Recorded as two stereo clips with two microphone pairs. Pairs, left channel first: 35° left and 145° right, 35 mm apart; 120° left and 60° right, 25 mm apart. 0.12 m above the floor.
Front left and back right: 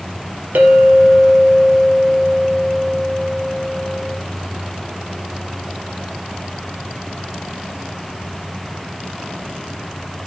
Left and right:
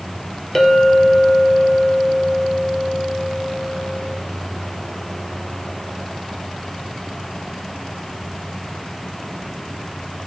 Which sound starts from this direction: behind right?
A clink, at 0.6 s.